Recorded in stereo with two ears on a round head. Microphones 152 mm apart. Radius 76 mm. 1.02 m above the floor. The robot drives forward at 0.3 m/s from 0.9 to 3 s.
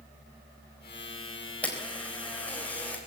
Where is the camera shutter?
10° left (ahead or behind), 3.5 m.